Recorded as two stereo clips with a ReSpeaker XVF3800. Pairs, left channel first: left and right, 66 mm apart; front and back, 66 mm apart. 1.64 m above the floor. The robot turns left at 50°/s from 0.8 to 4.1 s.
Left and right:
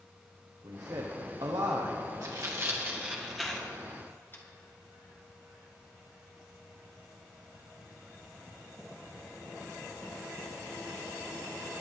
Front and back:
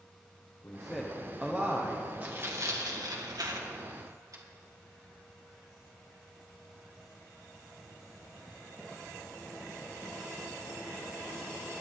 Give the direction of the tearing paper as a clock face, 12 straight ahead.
4 o'clock.